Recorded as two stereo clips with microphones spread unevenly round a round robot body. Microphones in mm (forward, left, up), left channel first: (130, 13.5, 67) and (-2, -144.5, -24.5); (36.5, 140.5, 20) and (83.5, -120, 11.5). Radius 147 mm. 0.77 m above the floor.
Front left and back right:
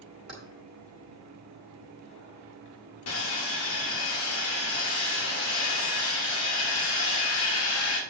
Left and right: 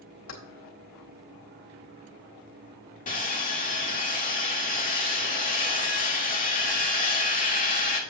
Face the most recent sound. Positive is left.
turn(degrees=40)